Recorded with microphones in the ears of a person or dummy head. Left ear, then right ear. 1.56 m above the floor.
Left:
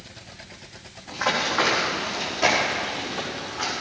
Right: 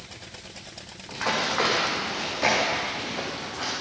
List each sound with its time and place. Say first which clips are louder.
1.1 s running footsteps: left 2 dB; centre (ahead or behind), 5 m; by 3.7 s 10° left (ahead or behind), 6.5 m